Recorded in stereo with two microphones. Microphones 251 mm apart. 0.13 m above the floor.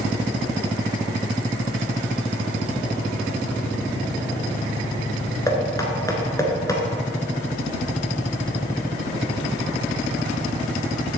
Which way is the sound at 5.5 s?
15° left (ahead or behind).